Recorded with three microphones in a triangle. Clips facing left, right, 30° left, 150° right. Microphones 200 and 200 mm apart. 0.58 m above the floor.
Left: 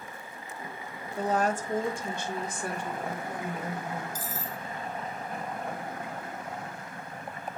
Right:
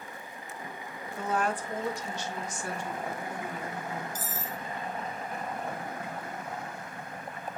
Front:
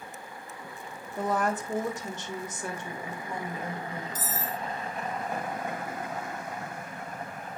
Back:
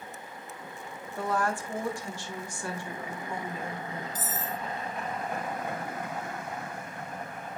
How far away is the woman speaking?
About 1.1 m.